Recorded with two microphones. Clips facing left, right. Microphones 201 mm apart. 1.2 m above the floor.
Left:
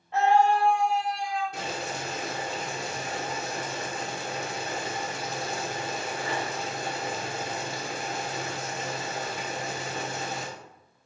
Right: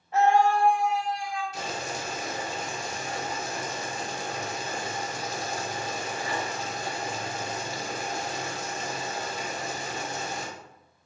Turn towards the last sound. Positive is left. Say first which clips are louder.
# even
turn(degrees=60)  # may be behind; listen again after turning